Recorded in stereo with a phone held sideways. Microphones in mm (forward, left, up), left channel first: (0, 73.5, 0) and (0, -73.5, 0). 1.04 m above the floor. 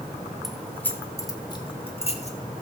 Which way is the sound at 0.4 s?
Centre (ahead or behind).